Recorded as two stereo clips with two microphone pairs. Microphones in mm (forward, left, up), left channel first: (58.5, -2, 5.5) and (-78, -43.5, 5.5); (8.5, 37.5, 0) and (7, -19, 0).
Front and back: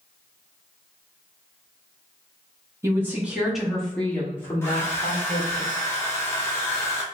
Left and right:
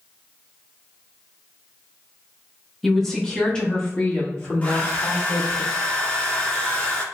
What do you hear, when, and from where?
2.8 s a woman speaking: 170° left, 1.2 m; by 5.6 s 70° left, 1.9 m
4.6 s a hair dryer: 75° left, 1.1 m